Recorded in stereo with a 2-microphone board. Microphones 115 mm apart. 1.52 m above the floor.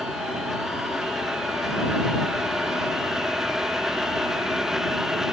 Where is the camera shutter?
I don't hear a camera shutter.